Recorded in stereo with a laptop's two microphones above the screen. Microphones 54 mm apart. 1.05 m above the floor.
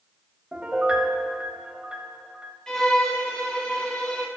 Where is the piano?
25° right (ahead or behind), 3 m.